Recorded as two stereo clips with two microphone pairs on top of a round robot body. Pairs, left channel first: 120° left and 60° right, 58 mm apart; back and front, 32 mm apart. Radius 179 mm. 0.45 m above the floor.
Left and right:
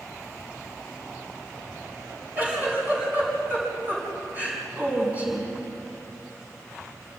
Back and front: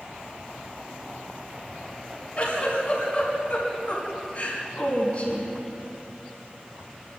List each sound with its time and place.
2.4 s a giggle: 125° right, 5.5 m